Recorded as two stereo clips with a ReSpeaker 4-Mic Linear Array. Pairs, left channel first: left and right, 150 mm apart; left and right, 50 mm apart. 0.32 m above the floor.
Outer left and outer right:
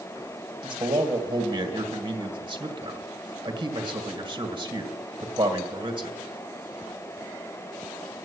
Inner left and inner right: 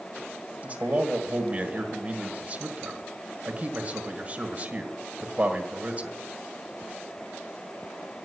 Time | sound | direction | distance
0.6 | a man speaking | 35° right (ahead or behind) | 1.6 m